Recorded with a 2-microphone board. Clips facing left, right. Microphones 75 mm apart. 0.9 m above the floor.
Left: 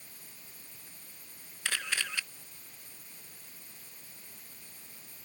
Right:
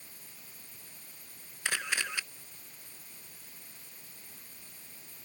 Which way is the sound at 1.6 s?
20° right (ahead or behind).